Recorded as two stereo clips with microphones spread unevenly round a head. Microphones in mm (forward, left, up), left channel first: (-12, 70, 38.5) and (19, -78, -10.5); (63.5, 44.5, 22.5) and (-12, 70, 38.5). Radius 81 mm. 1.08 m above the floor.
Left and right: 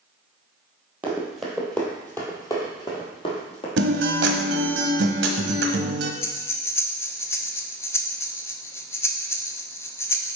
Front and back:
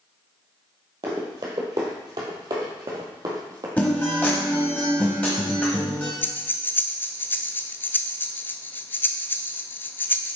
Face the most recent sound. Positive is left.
turn(degrees=50)